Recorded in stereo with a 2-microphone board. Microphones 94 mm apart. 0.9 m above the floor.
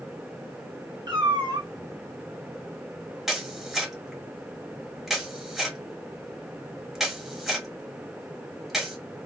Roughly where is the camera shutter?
Centre.